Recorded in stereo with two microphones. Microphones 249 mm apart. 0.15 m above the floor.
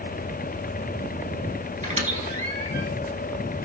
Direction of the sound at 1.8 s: 30° right (ahead or behind).